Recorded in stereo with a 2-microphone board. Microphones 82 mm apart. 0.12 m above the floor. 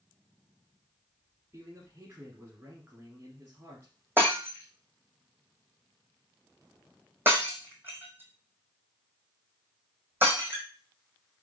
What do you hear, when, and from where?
1.5 s a man speaking: 25° right (ahead or behind), 1.5 m
4.2 s breaking glass: 25° right (ahead or behind), 1.8 m